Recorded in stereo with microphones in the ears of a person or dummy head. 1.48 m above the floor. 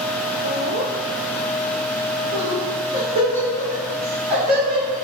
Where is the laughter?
80° right, 0.6 m; by 5.0 s 30° right (ahead or behind), 2.5 m.